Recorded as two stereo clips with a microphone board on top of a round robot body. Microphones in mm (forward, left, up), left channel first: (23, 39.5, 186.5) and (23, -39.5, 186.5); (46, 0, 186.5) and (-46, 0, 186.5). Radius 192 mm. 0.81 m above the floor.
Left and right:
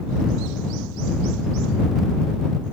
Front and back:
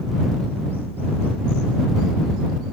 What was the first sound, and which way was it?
Only background noise.